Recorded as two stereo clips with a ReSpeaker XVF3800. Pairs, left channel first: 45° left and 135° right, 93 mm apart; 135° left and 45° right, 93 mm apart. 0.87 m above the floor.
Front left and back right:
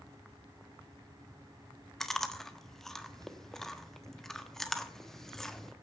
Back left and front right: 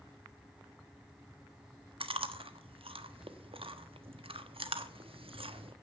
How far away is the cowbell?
No cowbell in this recording.